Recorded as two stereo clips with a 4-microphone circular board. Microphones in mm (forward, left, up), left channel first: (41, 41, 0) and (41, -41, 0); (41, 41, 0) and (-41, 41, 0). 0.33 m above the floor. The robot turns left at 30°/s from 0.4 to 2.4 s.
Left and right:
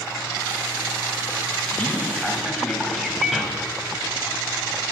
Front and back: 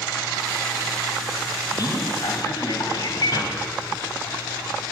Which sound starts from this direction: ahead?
A man speaking, at 1.7 s.